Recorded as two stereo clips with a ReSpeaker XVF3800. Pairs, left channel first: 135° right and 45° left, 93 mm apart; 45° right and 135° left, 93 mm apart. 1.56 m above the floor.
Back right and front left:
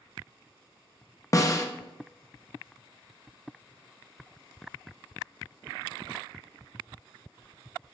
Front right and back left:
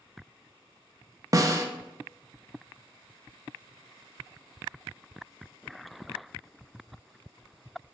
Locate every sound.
1.3 s a snare drum: straight behind, 0.5 m